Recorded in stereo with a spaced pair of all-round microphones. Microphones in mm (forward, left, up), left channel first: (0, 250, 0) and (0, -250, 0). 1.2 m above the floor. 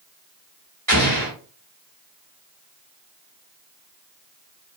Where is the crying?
I don't hear crying.